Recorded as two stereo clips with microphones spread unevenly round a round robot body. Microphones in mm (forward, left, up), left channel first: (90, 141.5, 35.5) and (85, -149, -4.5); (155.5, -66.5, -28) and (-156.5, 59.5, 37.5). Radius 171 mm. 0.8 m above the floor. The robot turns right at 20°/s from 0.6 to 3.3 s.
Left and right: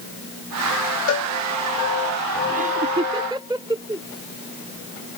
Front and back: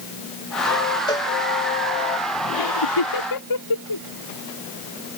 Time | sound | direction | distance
1.1 | a cowbell | 50° left | ?
2.5 | laughter | 30° right | ?